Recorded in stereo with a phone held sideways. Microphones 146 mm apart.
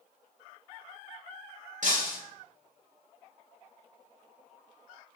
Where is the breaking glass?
60° right (ahead or behind), 2.5 m.